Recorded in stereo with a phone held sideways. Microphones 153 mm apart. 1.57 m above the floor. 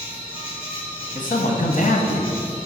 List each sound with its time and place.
0.0 s an insect: 35° left (ahead or behind), 2.5 m
1.1 s a man speaking: 55° left (ahead or behind), 0.9 m